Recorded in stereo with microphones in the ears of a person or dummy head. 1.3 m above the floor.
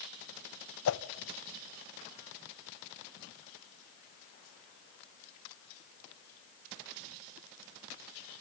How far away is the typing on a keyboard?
No typing on a keyboard in this recording.